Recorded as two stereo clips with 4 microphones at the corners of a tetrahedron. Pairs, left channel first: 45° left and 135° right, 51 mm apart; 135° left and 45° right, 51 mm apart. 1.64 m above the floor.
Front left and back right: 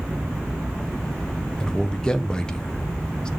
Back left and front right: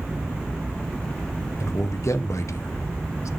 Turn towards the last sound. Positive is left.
turn(degrees=120)